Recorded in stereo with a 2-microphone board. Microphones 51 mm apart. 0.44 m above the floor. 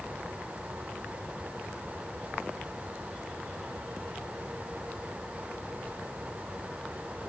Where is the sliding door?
No sliding door in this recording.